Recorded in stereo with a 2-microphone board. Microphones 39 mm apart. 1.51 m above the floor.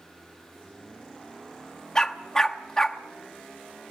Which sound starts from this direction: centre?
A dog barking, at 1.9 s.